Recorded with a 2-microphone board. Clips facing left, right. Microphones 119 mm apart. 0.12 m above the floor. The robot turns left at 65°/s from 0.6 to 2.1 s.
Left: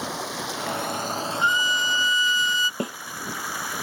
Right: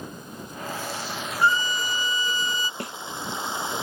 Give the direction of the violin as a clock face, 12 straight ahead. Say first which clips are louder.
Right 3 dB; 2 o'clock.